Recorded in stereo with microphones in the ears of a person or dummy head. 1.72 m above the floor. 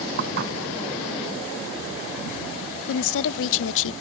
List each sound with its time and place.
0.2 s dishes clattering: 60° right (ahead or behind)
2.9 s a woman speaking: 80° left